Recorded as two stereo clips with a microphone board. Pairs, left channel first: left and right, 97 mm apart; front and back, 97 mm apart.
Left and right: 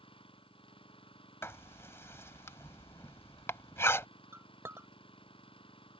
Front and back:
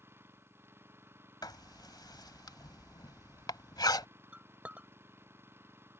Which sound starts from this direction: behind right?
A clink, at 4.3 s.